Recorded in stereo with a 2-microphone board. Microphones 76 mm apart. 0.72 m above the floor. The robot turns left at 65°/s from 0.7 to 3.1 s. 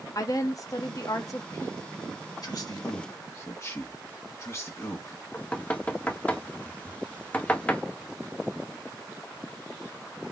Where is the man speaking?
50° left (ahead or behind), 1.5 m; by 5.2 s 40° left (ahead or behind), 1.5 m.